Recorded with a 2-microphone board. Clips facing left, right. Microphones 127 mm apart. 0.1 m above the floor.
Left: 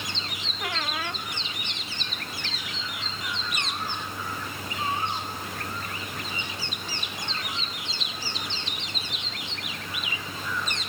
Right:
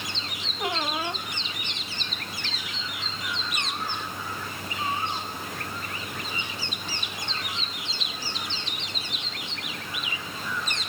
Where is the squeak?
25° right (ahead or behind).